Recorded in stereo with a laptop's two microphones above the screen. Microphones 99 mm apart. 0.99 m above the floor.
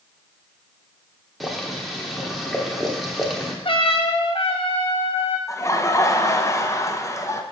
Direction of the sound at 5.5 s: 30° left (ahead or behind).